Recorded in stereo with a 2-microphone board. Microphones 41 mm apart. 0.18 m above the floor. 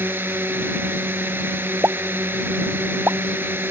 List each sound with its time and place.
0.0 s a drone: 65° right (ahead or behind)
1.8 s a pop: 75° right (ahead or behind)